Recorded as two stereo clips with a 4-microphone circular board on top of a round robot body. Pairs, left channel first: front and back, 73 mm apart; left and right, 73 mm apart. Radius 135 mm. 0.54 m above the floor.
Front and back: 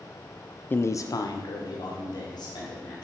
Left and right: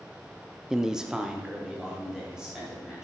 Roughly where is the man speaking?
Ahead.